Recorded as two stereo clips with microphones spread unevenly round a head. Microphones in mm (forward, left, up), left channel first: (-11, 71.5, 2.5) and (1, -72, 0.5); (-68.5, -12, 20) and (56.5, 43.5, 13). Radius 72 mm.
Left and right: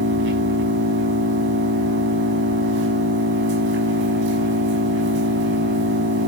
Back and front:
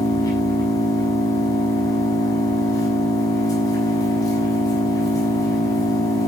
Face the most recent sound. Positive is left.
turn(degrees=-90)